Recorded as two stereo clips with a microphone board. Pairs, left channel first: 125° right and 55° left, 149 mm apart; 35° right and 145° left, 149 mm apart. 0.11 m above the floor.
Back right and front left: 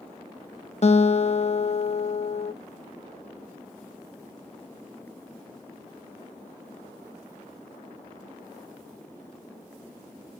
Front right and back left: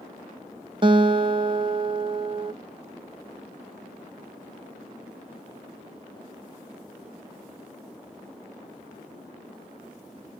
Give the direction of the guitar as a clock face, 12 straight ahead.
5 o'clock.